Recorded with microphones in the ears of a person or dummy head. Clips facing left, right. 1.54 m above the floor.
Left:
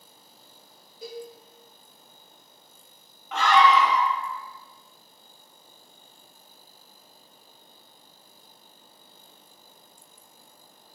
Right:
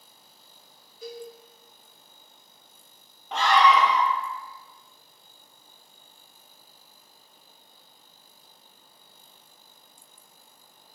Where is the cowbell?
30° left (ahead or behind), 0.8 m.